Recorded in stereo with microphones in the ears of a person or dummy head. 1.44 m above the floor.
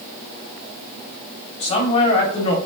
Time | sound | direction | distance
1.6 | a man speaking | 30° left (ahead or behind) | 1.3 m